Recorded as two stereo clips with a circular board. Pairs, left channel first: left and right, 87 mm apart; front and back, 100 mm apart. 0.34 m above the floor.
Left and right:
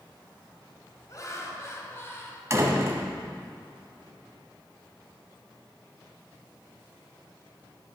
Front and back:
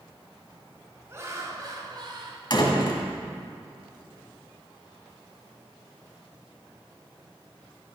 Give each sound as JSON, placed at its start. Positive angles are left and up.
{"t": 1.1, "sound": "laughter", "azimuth_deg": 125, "distance_m": 2.0}
{"t": 2.5, "sound": "a door slam", "azimuth_deg": -35, "distance_m": 1.8}